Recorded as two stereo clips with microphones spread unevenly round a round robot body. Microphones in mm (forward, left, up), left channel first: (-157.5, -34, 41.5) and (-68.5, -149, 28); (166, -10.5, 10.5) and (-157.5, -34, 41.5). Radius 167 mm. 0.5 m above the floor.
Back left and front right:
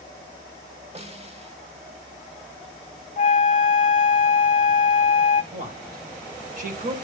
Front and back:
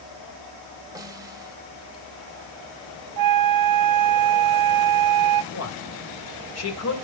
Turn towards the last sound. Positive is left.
turn(degrees=-30)